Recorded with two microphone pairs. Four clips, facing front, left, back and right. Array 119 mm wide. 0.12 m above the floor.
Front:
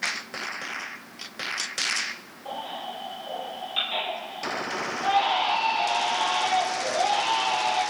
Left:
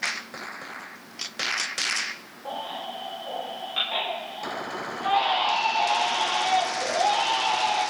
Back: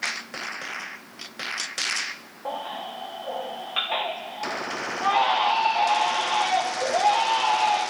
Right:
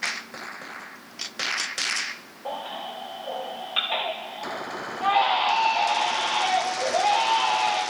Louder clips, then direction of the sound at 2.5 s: Right 1 dB, back 2 dB; 170° right.